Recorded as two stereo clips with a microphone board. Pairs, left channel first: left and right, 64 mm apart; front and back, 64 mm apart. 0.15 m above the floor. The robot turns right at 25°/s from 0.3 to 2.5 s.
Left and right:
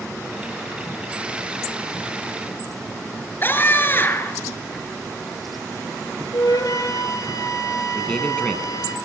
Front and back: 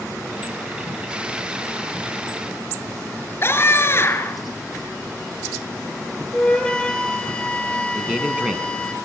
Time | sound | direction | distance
3.4 | a scream | 40° left | 2.0 m
6.3 | a flute | 75° left | 1.9 m
8.0 | a man speaking | 140° left | 1.6 m